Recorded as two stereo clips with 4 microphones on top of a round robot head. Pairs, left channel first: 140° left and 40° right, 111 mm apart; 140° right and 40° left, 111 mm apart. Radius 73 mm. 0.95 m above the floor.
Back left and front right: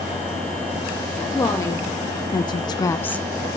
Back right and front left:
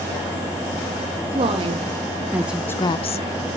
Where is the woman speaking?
75° left, 1.6 m; by 3.6 s 130° right, 1.1 m.